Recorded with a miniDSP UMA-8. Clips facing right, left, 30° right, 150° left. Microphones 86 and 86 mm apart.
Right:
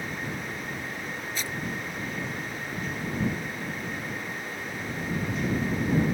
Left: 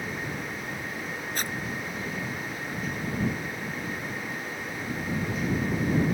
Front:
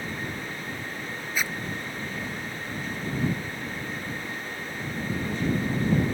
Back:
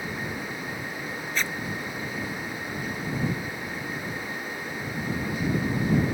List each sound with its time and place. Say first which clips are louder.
1.4 s a zipper: left 3 dB, even; 50° left